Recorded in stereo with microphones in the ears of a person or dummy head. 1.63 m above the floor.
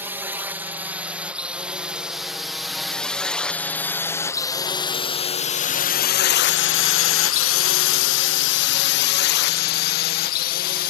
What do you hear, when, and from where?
0.0 s a drone: 10° right (ahead or behind); by 10.9 s 50° left (ahead or behind)